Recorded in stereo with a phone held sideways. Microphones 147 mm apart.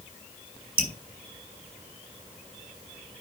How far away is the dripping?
About 3 m.